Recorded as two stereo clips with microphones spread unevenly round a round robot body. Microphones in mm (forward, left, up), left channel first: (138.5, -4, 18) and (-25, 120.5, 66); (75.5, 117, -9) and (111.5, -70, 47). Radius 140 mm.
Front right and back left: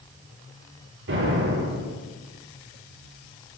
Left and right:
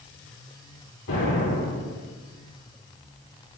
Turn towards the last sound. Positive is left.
turn(degrees=130)